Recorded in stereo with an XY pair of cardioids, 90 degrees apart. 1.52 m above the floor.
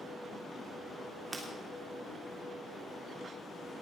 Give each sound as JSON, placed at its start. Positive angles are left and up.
{"t": 1.3, "sound": "breaking glass", "azimuth_deg": -40, "distance_m": 3.0}